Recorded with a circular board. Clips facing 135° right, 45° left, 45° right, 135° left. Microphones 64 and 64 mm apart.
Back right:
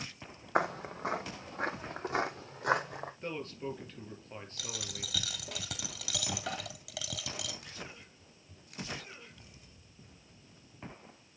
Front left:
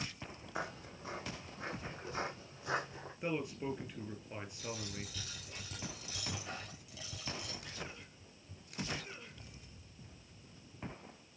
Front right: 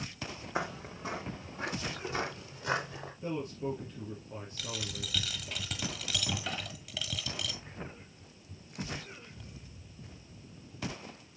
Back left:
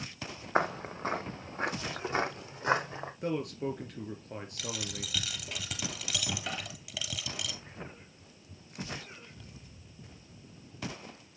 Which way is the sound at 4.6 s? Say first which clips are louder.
Front left 1 dB, even; 140° right.